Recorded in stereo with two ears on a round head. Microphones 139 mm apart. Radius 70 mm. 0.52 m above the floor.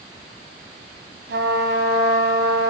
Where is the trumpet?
75° right (ahead or behind), 3.5 m.